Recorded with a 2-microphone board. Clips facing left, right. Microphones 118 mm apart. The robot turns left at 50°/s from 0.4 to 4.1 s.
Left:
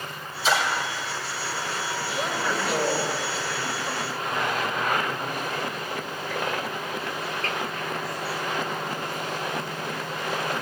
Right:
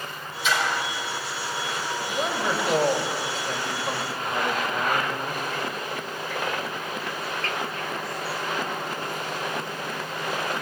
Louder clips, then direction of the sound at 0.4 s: Left 2 dB; 35° left (ahead or behind).